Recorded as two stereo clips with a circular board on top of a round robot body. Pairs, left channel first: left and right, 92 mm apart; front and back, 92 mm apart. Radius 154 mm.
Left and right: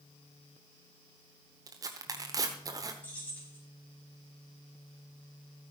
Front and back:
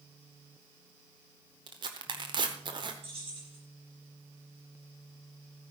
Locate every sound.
1.7 s tearing paper: 140° right, 0.8 m
3.0 s keys jangling: 165° left, 5 m